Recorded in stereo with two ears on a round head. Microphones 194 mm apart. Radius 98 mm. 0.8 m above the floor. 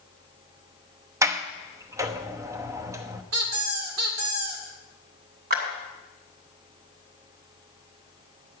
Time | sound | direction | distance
1.2 | a sliding door | 15° right (ahead or behind) | 0.7 m
3.3 | a squeak | 80° right | 1.7 m
5.5 | a clap | 45° right (ahead or behind) | 2.5 m